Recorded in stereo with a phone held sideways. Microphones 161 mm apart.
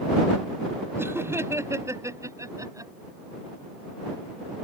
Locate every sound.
1.0 s laughter: 15° right (ahead or behind); by 2.9 s 20° right (ahead or behind)